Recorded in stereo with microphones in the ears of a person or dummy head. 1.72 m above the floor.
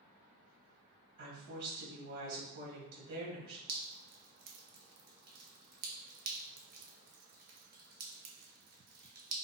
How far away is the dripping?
About 0.5 m.